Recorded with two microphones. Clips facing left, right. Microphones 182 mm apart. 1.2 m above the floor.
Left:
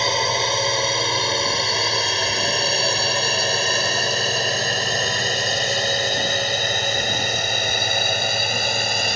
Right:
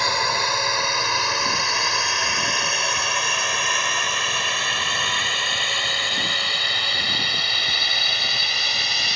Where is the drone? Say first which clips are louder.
Left 3 dB; 25° left (ahead or behind); by 9.2 s 50° left (ahead or behind).